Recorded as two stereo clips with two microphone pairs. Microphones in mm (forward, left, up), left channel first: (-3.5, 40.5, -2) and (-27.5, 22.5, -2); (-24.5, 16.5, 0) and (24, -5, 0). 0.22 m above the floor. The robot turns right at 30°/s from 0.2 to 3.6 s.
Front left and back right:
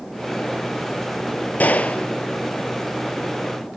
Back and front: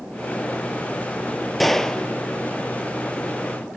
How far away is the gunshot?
About 0.8 m.